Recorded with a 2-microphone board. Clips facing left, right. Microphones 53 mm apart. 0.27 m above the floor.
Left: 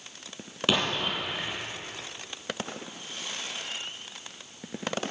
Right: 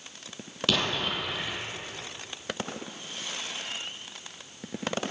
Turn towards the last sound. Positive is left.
turn(degrees=20)  # may be behind; listen again after turning